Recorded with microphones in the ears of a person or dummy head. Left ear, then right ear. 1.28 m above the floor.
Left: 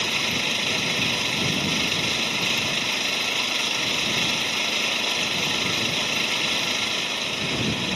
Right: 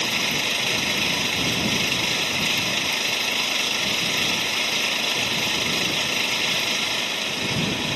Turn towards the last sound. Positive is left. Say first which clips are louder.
# right 1 dB
turn(degrees=-5)  # may be behind; listen again after turning